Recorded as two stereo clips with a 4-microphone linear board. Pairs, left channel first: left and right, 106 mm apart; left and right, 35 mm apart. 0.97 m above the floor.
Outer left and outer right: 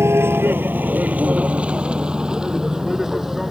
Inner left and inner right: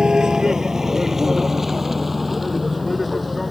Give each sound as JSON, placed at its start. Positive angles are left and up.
{"t": 0.0, "sound": "a vehicle", "side_deg": -25}